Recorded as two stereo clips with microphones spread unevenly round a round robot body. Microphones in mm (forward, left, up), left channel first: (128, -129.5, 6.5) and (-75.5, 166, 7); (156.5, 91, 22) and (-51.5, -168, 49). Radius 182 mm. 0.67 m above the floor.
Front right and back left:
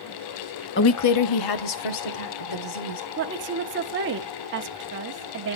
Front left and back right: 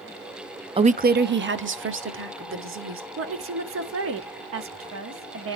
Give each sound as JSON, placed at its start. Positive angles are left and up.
{"t": 0.8, "sound": "a woman speaking", "azimuth_deg": -60, "distance_m": 0.6}
{"t": 3.2, "sound": "a woman speaking", "azimuth_deg": 180, "distance_m": 1.2}